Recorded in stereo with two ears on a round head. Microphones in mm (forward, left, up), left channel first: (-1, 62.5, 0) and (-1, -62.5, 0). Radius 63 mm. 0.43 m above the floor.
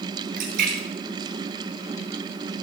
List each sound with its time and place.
0.4 s a splash: 65° right (ahead or behind), 4.5 m